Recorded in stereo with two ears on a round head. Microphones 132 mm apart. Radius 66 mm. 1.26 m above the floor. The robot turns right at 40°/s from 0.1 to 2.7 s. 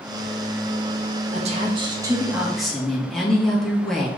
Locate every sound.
1.3 s a woman speaking: 50° right, 1.8 m; by 4.1 s 5° left, 1.8 m